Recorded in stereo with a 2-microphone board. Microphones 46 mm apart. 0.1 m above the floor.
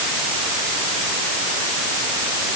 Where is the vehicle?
I don't hear a vehicle.